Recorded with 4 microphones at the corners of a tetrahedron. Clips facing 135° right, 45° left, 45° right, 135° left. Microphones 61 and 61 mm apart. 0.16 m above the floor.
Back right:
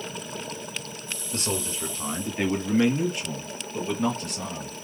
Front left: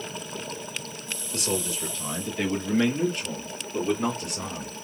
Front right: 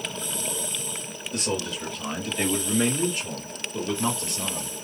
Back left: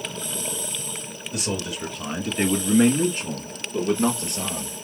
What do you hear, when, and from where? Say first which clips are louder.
1.3 s a man speaking: front left 1 dB, even; 140° right, 2.0 m; by 4.7 s 110° left, 2.5 m